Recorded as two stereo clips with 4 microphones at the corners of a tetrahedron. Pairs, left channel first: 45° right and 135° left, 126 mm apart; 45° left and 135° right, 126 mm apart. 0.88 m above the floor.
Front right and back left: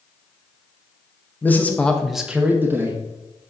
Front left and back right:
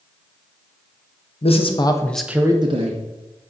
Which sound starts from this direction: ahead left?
A man speaking, at 1.4 s.